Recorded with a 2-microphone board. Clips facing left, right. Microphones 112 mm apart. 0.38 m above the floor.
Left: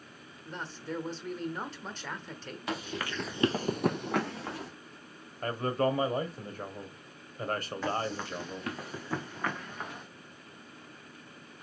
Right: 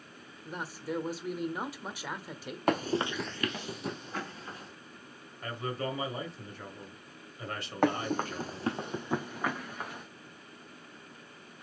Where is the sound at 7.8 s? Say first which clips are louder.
Right 7 dB; 60° right (ahead or behind), 0.9 m; by 10.1 s centre (ahead or behind), 1.8 m.